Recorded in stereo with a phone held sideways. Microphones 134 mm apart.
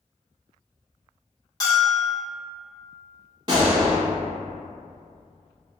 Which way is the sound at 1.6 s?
25° left (ahead or behind).